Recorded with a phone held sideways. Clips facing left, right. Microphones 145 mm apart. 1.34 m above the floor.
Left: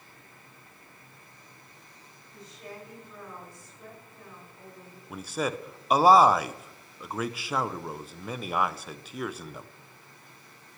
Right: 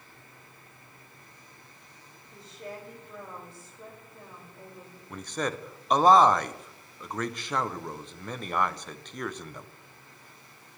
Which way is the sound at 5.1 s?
5° left (ahead or behind).